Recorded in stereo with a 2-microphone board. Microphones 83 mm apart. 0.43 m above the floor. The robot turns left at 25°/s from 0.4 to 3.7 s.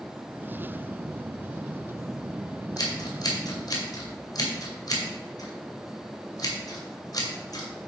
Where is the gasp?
I don't hear a gasp.